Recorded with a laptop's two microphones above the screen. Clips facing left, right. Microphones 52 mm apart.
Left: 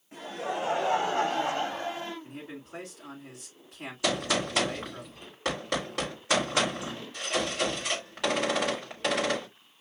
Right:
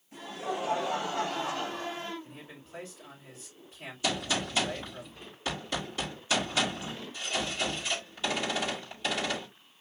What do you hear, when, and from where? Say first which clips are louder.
0.1 s laughter: left 2 dB; 55° left (ahead or behind), 3.5 m; by 2.1 s 35° left (ahead or behind), 1.9 m
2.2 s a man speaking: left 6 dB; 75° left (ahead or behind), 4.5 m
4.0 s a gunshot: left 3 dB; 70° left (ahead or behind), 4.5 m